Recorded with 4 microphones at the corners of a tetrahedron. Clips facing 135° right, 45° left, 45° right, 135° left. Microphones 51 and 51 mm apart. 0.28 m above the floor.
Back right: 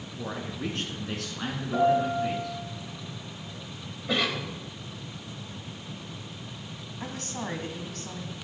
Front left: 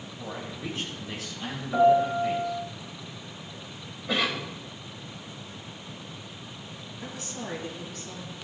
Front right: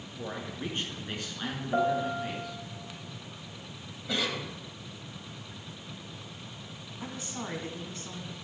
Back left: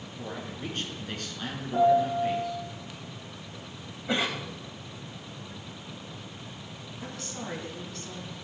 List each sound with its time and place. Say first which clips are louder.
0.2 s a man speaking: back right 3 dB, front right 1 dB; 105° right, 3.5 m; by 2.6 s 135° right, 3.5 m
1.7 s a piano: front left 3 dB, back left 6 dB; 35° right, 3 m
4.1 s a cough: even, back left 3 dB; 135° left, 1.3 m
7.0 s a woman speaking: back right 3 dB, front right 1 dB; 110° right, 2.5 m